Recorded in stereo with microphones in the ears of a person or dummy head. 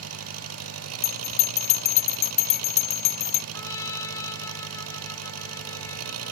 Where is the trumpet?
15° left (ahead or behind).